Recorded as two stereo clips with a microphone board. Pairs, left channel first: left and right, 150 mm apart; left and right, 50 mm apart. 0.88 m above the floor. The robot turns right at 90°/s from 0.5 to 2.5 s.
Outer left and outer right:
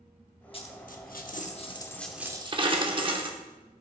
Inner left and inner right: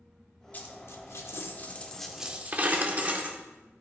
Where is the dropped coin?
35° left (ahead or behind), 0.8 m; by 3.4 s 35° right (ahead or behind), 0.8 m.